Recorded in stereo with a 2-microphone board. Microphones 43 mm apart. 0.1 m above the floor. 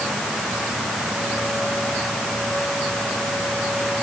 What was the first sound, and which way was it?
Only background noise.